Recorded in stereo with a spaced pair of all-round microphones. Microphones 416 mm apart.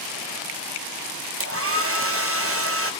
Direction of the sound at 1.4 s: 30° right (ahead or behind).